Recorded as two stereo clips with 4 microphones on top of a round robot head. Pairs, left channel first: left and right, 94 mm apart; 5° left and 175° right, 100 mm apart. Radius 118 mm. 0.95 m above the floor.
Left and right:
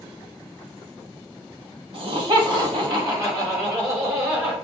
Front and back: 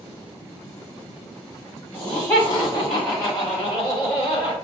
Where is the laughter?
60° right, 1.7 m; by 4.5 s 25° right, 3 m.